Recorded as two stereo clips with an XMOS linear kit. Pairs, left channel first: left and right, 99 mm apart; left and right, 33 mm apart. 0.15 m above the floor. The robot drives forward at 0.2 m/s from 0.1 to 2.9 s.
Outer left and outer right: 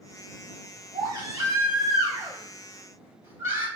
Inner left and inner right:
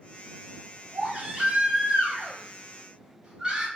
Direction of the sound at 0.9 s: 40° right (ahead or behind).